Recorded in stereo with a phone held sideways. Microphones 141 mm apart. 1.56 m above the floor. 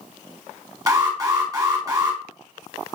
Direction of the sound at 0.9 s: 30° right (ahead or behind).